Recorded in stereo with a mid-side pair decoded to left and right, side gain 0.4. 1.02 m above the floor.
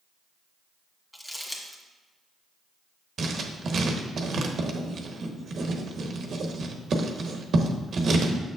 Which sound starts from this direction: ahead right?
Writing, at 3.2 s.